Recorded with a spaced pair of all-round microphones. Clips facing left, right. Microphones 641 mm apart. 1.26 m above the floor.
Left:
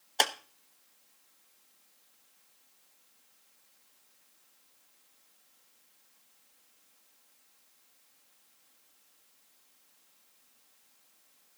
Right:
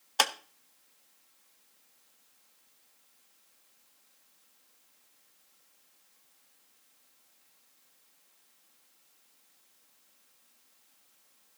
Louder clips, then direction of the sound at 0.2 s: Left 1 dB; 35° right (ahead or behind).